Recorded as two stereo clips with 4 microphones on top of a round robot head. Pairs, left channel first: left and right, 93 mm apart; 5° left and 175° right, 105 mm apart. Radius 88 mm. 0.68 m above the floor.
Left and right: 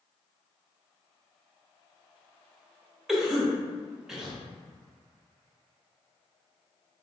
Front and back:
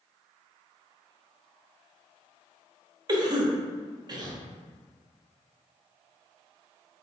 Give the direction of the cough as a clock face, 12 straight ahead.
6 o'clock.